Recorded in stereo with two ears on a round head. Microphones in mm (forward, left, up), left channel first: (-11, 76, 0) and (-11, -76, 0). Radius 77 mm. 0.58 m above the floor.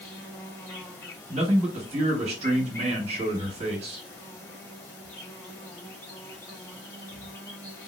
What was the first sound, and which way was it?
An insect, 15° left (ahead or behind).